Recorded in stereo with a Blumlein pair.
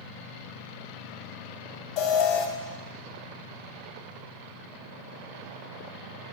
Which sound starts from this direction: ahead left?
An alarm, at 2.0 s.